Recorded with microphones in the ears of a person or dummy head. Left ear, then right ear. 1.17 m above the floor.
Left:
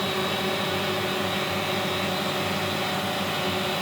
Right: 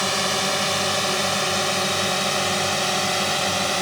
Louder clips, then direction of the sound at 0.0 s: Right 4 dB; 75° right (ahead or behind).